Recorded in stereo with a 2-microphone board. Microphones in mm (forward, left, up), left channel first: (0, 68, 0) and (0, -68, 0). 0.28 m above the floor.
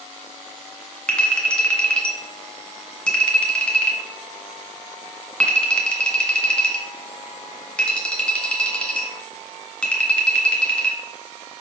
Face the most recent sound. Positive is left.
turn(degrees=5)  # may be behind; listen again after turning